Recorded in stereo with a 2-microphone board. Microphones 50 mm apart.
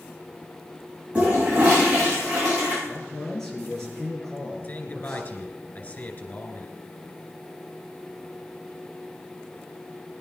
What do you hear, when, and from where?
1.1 s a toilet flushing: 25° right (ahead or behind), 8.5 m
2.9 s a man speaking: 10° left (ahead or behind), 6 m
4.6 s a man speaking: 35° left (ahead or behind), 2.5 m